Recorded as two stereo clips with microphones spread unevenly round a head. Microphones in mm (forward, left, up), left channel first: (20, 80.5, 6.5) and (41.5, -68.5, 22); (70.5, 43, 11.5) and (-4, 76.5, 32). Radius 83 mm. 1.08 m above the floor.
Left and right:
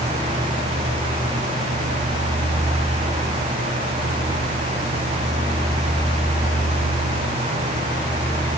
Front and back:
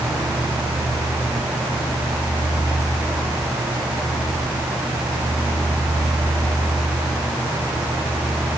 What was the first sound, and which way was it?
Only background noise.